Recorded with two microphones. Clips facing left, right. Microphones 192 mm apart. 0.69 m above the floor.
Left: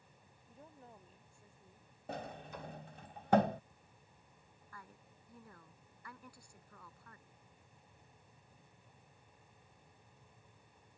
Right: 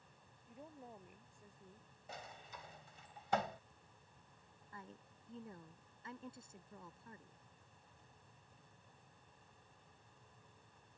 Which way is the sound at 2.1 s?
55° left (ahead or behind).